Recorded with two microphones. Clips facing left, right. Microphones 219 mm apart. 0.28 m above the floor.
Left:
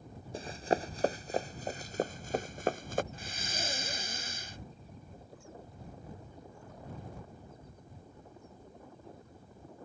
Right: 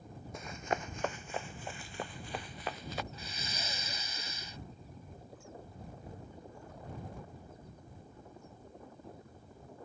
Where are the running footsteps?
30° left (ahead or behind); by 3.0 s 50° left (ahead or behind).